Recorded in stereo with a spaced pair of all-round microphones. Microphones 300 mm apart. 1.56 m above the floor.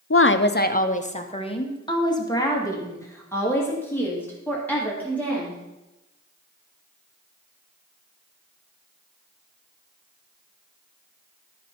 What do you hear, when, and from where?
0.1 s a woman speaking: 50° left (ahead or behind), 0.6 m; by 5.6 s 5° left (ahead or behind), 3.5 m